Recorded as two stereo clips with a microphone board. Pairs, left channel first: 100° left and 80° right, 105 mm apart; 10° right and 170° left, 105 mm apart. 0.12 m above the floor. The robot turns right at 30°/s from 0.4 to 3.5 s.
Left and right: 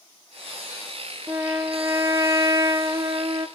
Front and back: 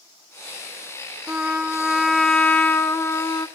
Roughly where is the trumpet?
Behind right.